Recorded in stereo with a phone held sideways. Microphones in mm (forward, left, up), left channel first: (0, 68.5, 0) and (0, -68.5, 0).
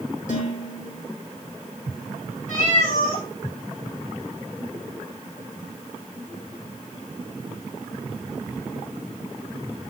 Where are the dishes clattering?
75° left (ahead or behind), 6.5 m.